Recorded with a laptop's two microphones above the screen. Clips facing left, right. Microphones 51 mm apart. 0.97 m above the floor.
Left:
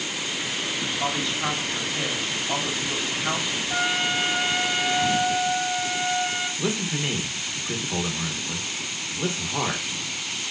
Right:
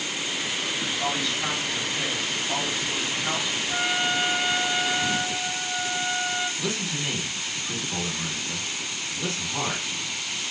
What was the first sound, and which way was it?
A woman speaking, 15° left (ahead or behind).